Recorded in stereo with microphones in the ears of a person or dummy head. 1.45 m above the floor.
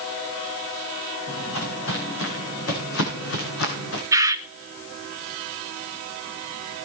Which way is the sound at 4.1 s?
15° right (ahead or behind).